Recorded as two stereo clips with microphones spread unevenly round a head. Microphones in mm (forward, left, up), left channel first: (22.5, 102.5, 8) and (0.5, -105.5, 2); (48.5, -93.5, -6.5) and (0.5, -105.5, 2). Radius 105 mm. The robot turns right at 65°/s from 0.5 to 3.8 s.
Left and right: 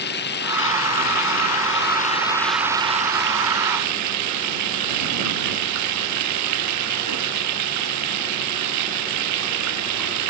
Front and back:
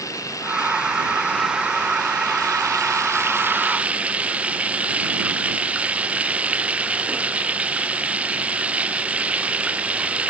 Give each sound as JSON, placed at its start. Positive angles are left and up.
{"t": 0.0, "sound": "running water", "azimuth_deg": 40}